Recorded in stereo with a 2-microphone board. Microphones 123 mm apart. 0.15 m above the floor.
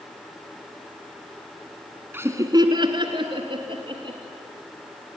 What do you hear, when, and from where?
2.1 s laughter: 20° right (ahead or behind), 1.1 m; by 4.2 s 40° right (ahead or behind), 3.5 m